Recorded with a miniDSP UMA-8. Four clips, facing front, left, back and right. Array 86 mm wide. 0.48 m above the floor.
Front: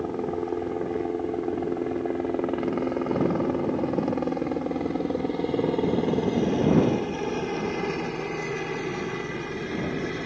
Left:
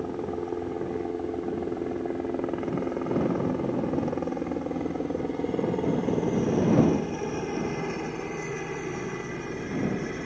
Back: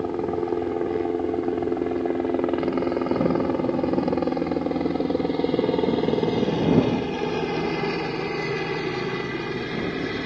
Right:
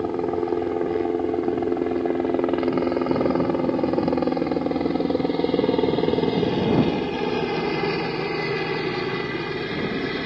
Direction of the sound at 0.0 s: 110° right.